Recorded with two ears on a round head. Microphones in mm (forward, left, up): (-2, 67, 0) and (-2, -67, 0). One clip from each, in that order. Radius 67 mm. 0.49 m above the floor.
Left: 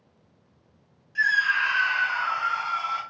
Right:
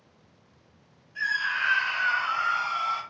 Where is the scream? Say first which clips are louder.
Left 5 dB; 30° left (ahead or behind), 1.1 m; by 3.0 s 50° right (ahead or behind), 1.1 m.